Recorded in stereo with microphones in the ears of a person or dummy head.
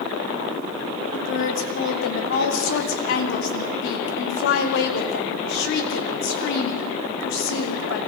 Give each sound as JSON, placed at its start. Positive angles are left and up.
{"t": 1.1, "sound": "a woman speaking", "side_deg": 70, "distance_m": 3.0}